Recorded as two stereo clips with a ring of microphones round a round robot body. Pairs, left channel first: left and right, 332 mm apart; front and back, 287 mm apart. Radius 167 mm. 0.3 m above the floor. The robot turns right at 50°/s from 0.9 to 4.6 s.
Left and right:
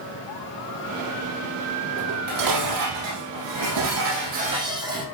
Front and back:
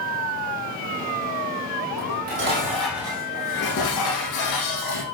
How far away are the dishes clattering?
About 8.5 m.